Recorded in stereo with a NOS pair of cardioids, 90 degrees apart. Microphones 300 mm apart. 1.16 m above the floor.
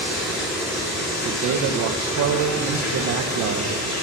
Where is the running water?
60° left, 3 m.